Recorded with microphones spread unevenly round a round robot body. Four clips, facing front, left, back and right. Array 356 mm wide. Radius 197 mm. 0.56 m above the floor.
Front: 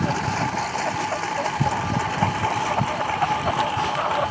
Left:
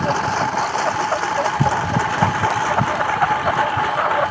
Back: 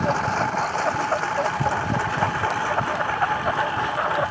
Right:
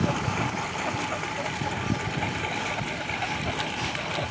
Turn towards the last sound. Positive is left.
turn(degrees=75)